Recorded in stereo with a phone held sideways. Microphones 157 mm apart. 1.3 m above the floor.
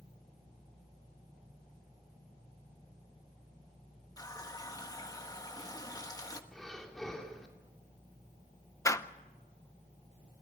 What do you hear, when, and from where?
4.2 s a running tap: 25° left (ahead or behind), 1.2 m
6.5 s breathing: centre (ahead or behind), 2.5 m
8.8 s a door slam: 20° left (ahead or behind), 0.7 m